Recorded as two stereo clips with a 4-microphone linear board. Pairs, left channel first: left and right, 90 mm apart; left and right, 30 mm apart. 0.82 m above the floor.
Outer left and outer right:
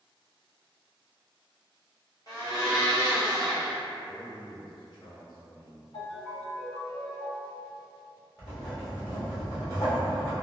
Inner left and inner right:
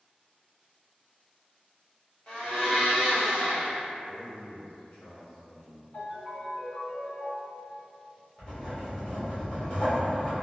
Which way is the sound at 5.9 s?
60° left (ahead or behind).